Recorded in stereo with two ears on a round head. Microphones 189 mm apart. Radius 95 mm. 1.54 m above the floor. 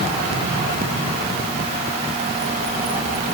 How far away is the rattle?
No rattle in this recording.